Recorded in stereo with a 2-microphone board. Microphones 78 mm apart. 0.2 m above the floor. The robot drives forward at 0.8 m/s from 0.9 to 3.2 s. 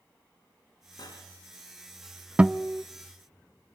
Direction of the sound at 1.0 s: 60° left (ahead or behind).